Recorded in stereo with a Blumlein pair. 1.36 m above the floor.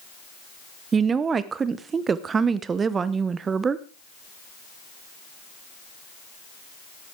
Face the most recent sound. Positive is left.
turn(degrees=-20)